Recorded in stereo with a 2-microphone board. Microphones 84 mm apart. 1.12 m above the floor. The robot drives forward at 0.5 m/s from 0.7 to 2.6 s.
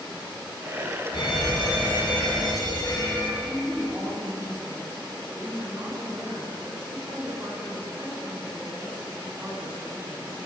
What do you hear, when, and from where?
1.1 s an alarm: 65° left (ahead or behind), 2.5 m; by 3.3 s 50° left (ahead or behind), 3 m
3.4 s a woman speaking: 25° right (ahead or behind), 5 m